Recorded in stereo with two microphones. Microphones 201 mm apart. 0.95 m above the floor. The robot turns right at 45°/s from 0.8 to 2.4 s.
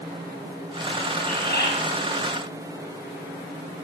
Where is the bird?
40° left (ahead or behind), 9.5 m; by 1.7 s 60° left (ahead or behind), 9.5 m.